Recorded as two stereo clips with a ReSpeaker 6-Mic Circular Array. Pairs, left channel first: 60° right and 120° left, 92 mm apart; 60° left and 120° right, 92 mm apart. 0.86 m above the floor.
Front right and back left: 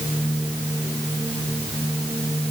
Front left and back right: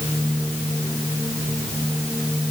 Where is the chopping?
I don't hear chopping.